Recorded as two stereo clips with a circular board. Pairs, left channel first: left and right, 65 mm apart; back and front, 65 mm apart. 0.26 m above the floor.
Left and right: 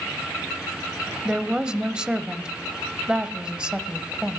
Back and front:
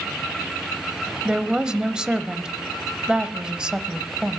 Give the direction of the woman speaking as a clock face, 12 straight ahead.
2 o'clock.